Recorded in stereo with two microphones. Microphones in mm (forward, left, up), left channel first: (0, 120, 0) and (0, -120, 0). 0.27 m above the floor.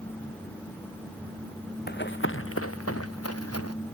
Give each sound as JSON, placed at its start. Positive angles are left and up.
{"t": 1.9, "sound": "running footsteps", "side_deg": 45}